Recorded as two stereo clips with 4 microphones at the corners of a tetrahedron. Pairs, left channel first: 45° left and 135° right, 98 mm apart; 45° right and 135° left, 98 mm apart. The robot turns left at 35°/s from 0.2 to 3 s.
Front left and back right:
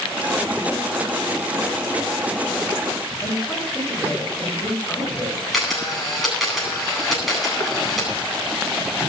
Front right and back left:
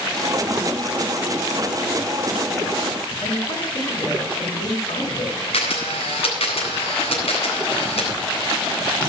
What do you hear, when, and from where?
3.2 s a woman speaking: 35° right, 9.5 m
5.5 s a camera shutter: 45° right, 9.5 m